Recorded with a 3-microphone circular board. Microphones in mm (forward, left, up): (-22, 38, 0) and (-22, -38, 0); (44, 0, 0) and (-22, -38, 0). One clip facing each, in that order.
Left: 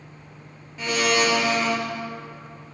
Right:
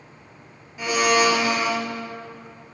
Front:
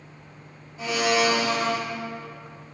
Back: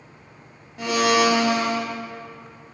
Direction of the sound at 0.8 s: 170° right.